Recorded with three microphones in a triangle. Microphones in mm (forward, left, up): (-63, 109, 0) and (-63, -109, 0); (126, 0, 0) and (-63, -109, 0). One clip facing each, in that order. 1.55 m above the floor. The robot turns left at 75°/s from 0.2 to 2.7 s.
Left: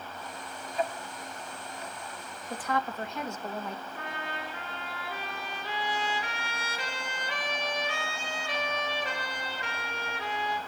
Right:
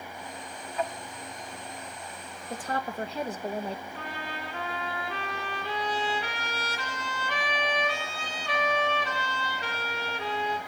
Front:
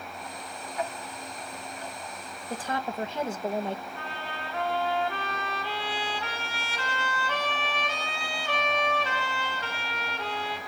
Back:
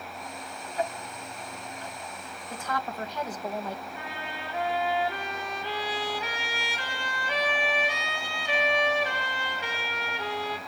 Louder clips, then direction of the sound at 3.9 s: Right 1 dB, even; 75° right.